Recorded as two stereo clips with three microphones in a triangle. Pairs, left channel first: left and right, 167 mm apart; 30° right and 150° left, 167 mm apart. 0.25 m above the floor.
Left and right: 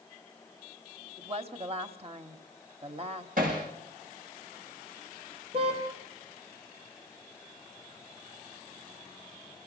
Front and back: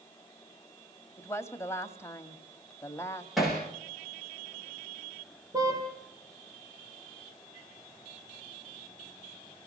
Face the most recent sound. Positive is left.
turn(degrees=-145)